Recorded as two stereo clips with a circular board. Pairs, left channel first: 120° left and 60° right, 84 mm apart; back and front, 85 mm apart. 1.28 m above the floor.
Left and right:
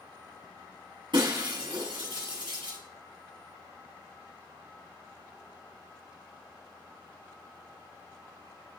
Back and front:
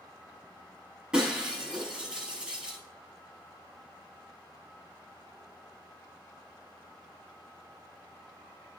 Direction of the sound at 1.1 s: 80° right.